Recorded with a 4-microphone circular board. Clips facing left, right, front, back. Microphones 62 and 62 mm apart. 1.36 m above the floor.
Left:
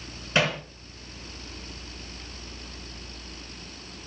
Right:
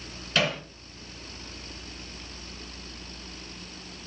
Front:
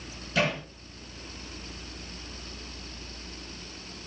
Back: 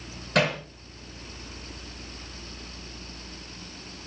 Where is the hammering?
155° left, 9.5 m.